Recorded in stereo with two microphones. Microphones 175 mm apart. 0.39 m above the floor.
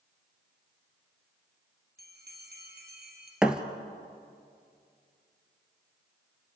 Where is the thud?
5° right (ahead or behind), 1.2 m.